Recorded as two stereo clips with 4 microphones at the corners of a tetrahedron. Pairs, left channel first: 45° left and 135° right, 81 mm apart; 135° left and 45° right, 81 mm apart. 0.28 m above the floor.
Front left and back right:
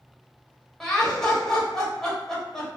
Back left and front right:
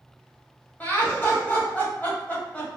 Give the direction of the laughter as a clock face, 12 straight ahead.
8 o'clock.